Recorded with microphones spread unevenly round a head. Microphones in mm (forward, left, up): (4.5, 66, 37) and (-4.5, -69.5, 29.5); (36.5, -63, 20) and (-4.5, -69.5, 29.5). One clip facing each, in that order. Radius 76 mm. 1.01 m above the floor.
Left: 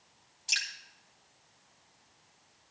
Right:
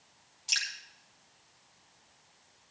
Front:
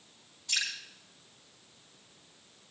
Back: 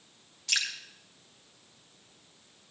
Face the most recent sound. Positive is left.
turn(degrees=175)